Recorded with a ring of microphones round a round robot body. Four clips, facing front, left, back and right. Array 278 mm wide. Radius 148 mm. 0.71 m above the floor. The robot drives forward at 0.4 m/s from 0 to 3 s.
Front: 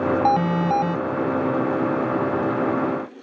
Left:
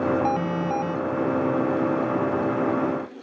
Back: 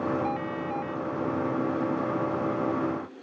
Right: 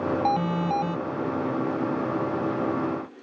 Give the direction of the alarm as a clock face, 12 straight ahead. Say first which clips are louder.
Even, front 11 dB; 12 o'clock.